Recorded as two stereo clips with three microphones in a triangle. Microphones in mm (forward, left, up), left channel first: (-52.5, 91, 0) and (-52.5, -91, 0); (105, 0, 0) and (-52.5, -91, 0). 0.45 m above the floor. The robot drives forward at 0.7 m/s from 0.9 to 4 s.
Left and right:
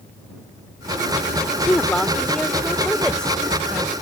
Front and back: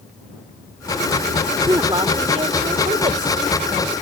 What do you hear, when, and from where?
1.7 s a woman speaking: 165° left; by 3.9 s 175° left